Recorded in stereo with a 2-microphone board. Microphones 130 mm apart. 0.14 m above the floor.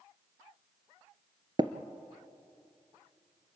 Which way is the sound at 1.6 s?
35° right (ahead or behind).